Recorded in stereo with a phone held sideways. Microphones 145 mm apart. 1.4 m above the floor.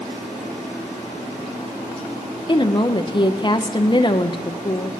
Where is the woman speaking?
35° left (ahead or behind), 0.6 m.